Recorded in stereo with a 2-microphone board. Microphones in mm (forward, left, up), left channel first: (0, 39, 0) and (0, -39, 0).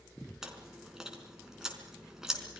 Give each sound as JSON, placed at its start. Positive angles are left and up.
{"t": 0.4, "sound": "chewing", "side_deg": -5, "distance_m": 4.5}